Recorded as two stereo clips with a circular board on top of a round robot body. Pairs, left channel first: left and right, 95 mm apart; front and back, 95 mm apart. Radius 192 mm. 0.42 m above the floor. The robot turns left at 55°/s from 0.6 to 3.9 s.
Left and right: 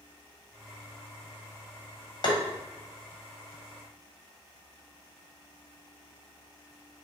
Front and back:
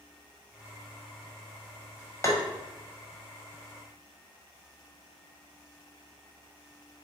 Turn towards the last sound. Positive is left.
turn(degrees=-35)